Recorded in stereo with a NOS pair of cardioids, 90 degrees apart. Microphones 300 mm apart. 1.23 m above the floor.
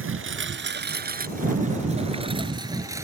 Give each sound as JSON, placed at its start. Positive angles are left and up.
{"t": 0.0, "sound": "a lawn mower", "azimuth_deg": -45}